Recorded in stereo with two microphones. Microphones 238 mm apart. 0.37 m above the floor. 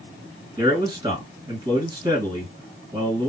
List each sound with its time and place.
0.6 s a man speaking: 20° right (ahead or behind), 2 m